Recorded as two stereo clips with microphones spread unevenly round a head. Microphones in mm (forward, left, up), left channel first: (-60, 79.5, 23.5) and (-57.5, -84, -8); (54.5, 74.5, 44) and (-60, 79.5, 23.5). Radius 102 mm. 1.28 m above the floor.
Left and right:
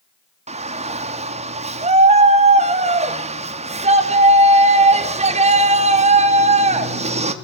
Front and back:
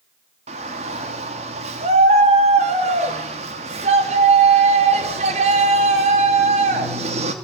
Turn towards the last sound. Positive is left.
turn(degrees=-140)